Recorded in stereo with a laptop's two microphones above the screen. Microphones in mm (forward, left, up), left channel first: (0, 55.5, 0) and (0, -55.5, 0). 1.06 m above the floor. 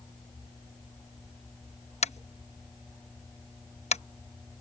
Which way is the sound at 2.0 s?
85° left.